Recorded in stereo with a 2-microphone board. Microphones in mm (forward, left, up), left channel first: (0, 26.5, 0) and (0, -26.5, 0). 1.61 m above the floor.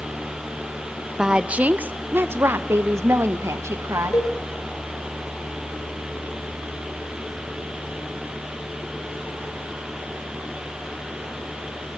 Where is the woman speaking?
15° right (ahead or behind), 0.7 m; by 4.2 s 70° right (ahead or behind), 1.8 m.